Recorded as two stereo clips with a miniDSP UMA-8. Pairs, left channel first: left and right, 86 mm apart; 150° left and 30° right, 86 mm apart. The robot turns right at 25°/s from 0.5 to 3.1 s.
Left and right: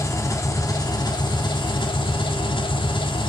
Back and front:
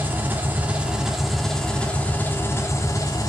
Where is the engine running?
40° left, 3 m; by 3.3 s 105° left, 3 m.